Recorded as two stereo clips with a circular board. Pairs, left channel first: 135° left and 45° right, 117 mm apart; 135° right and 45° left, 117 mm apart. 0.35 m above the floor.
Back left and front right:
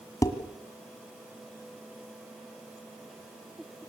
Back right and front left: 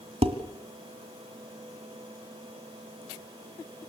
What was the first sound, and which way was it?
Dishes clattering, 75° left.